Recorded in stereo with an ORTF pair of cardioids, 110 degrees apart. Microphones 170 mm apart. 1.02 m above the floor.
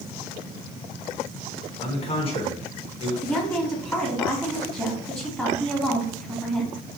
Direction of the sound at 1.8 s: 35° left.